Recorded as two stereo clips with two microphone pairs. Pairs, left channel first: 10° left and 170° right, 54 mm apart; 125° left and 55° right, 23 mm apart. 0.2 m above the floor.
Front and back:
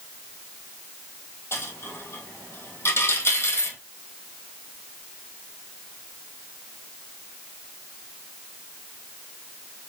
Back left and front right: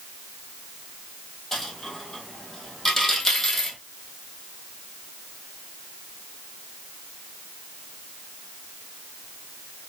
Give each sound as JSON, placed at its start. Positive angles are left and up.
{"t": 1.5, "sound": "a dropped coin", "azimuth_deg": 50, "distance_m": 1.5}